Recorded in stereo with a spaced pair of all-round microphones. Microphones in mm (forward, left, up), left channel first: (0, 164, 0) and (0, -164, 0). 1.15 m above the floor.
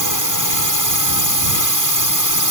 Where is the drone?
70° right (ahead or behind).